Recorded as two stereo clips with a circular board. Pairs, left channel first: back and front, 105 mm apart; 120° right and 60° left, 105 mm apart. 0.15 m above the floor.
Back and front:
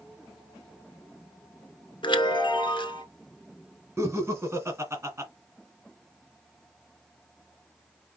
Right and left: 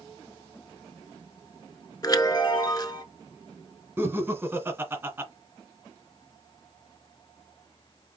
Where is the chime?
165° right, 1.1 m.